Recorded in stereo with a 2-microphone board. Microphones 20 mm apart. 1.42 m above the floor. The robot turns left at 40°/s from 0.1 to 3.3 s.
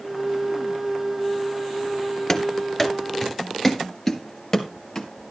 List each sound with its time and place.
2.3 s running footsteps: 25° left (ahead or behind), 1.6 m; by 5.1 s 20° left (ahead or behind), 1.9 m